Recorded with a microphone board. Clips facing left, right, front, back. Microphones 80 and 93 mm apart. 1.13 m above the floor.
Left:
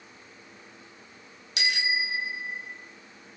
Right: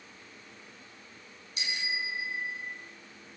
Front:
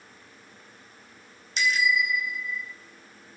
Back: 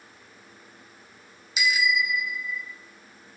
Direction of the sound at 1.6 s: 95° left.